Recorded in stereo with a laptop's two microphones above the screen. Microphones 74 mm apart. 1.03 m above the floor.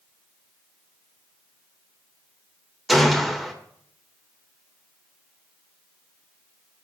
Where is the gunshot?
Centre (ahead or behind), 3 m.